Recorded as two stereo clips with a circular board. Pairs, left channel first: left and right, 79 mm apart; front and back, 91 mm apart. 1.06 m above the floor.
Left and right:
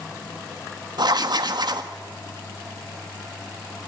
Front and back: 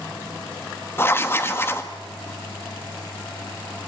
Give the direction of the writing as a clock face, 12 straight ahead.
2 o'clock.